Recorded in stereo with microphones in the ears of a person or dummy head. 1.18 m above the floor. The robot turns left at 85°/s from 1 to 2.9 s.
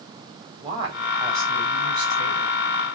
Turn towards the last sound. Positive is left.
turn(degrees=45)